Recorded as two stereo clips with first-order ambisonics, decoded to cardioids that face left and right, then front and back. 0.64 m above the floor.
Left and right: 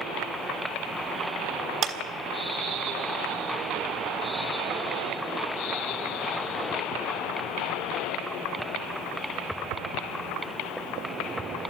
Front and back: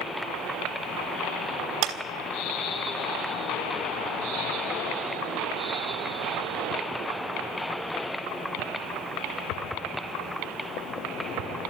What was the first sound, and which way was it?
A clap, 145° right.